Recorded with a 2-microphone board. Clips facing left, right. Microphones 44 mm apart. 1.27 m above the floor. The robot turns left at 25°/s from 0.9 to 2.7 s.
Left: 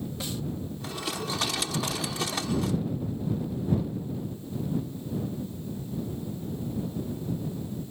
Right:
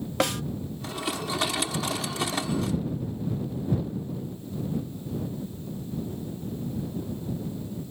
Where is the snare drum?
70° right (ahead or behind).